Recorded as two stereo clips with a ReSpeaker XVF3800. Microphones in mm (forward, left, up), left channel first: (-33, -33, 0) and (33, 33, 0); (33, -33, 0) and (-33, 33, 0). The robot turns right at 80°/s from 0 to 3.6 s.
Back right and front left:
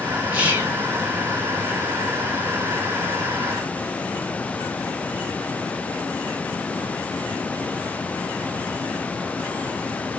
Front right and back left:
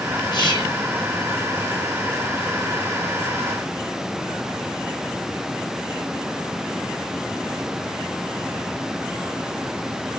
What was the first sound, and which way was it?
Whispering, 35° right.